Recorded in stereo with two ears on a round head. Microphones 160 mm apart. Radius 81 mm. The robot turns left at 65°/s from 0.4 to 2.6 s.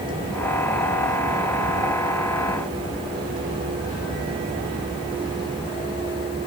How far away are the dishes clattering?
No dishes clattering in this recording.